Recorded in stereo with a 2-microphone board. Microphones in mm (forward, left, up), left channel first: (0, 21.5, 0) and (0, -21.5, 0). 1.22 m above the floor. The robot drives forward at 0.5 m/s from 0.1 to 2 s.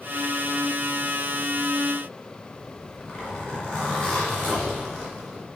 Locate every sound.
2.6 s a zipper: 15° left (ahead or behind), 2.5 m